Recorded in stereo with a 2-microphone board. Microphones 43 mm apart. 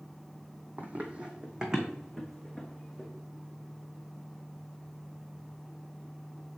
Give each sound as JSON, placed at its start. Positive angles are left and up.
{"t": 0.8, "sound": "running footsteps", "side_deg": -45, "distance_m": 1.3}